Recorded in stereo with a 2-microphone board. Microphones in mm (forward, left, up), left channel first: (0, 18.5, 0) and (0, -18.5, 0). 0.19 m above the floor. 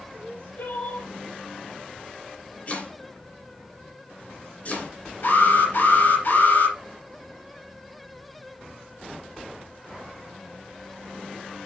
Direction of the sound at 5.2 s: 70° left (ahead or behind).